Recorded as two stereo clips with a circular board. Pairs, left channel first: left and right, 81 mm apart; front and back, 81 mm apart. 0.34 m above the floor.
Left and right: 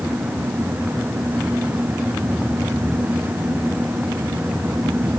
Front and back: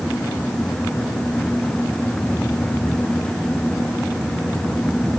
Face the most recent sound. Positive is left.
No sound to turn to.